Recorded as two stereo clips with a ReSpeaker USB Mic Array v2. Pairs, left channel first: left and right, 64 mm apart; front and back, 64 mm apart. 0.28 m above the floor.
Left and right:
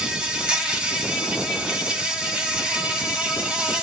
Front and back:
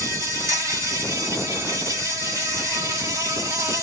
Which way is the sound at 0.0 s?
160° right.